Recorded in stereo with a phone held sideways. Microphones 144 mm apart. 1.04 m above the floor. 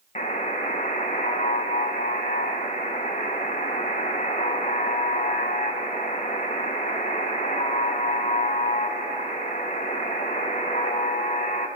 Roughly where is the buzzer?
Left.